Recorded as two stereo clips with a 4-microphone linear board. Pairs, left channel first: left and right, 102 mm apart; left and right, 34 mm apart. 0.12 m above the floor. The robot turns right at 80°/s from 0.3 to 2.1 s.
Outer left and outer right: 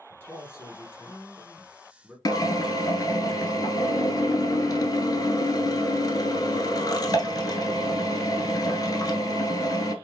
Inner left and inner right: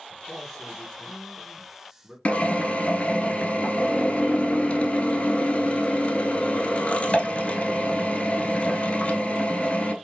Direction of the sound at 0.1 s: 20° left (ahead or behind).